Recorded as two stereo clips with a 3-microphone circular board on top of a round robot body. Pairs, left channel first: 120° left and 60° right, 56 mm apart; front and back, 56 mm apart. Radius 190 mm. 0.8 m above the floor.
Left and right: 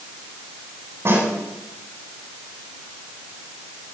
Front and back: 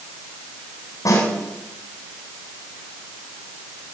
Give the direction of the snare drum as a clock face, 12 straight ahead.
12 o'clock.